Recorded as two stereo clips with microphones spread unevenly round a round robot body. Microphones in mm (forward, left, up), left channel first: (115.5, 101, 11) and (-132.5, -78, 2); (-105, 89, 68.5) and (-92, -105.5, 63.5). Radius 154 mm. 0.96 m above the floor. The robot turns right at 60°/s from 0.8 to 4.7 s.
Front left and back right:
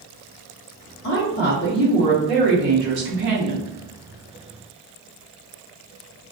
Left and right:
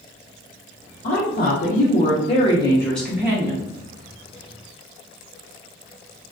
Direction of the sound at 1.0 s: 65° left.